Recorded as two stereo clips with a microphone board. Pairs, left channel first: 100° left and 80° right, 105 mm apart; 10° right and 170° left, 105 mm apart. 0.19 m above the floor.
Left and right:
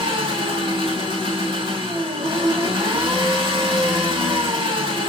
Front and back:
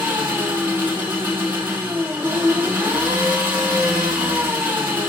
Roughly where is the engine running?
Behind right.